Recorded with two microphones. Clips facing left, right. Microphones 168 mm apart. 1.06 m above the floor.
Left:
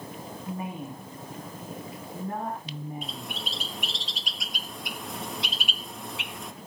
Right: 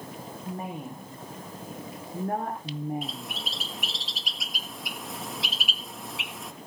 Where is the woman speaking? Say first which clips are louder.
Even; 45° right (ahead or behind), 3.5 m; by 3.4 s 70° right (ahead or behind), 3 m.